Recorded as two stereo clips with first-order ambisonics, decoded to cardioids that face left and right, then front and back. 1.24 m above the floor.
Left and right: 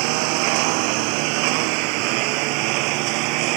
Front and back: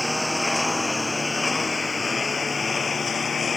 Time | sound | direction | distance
0.0 | a lawn mower | 85° right | ?